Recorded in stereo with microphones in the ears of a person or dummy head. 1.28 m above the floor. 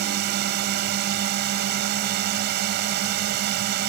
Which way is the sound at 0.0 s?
50° right (ahead or behind).